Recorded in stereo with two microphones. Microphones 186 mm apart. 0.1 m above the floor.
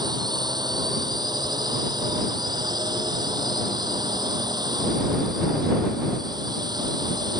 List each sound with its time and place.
0.0 s a drone: 20° right (ahead or behind)